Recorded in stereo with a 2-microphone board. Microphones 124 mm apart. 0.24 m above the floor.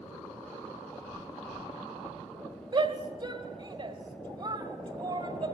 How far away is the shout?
About 1.7 m.